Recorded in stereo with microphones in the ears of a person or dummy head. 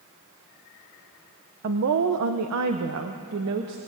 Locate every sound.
1.6 s a woman speaking: 50° right (ahead or behind), 1.0 m; by 3.8 s 60° right (ahead or behind), 2.0 m